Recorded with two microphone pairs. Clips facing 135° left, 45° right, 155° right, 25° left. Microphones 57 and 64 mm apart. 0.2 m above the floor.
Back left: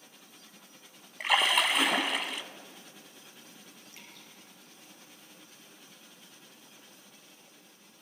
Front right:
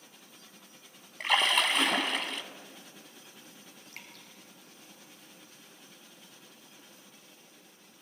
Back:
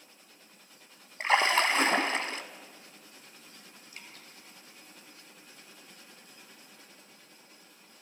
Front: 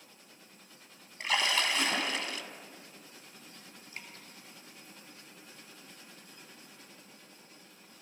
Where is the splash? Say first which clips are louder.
Back left 1 dB, back 6 dB; 140° right, 0.8 m.